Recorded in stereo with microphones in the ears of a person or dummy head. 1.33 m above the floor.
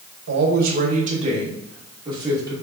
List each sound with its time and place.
0.3 s a man speaking: 70° right (ahead or behind), 1.0 m; by 2.5 s 20° right (ahead or behind), 2.0 m